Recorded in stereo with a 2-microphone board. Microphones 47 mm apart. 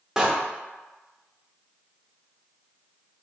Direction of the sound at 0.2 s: 10° right (ahead or behind).